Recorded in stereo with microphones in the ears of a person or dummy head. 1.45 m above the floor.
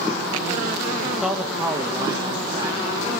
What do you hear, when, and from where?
1.0 s a man speaking: 15° left (ahead or behind), 1.0 m; by 3.1 s 20° right (ahead or behind), 4 m